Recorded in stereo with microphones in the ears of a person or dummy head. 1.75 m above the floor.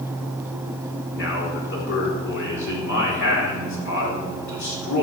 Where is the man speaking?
70° left (ahead or behind), 4.5 m.